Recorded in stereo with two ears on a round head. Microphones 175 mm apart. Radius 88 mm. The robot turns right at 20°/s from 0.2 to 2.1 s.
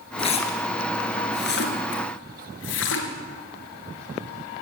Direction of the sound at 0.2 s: 30° left (ahead or behind).